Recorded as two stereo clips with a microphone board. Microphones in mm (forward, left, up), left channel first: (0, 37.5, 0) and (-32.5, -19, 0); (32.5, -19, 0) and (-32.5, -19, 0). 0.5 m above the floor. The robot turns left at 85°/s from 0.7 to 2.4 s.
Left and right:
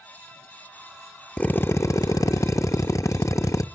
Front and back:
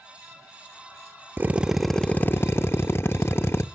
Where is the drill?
130° left, 0.6 m; by 3.6 s 40° left, 0.6 m.